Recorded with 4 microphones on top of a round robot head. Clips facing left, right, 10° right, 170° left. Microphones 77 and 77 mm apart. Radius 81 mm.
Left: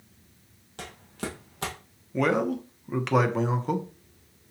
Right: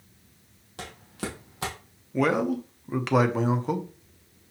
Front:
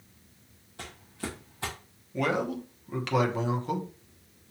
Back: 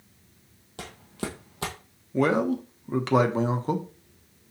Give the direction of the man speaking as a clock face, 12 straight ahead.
6 o'clock.